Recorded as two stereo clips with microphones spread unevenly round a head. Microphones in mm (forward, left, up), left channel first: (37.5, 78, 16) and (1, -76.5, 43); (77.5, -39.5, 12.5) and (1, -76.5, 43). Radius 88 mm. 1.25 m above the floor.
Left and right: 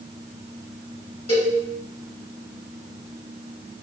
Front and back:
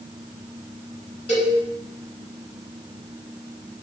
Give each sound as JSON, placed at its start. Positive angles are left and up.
{"t": 1.3, "sound": "a cowbell", "azimuth_deg": 25, "distance_m": 1.8}